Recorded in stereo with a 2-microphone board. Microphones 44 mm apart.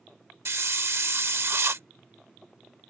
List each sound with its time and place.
0.5 s a hiss: 65° right (ahead or behind)